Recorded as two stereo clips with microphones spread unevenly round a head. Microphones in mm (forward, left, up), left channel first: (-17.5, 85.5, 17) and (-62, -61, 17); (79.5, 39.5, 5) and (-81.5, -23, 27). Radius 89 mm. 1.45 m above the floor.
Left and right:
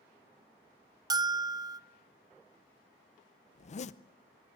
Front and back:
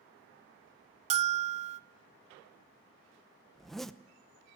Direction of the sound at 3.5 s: 115° left.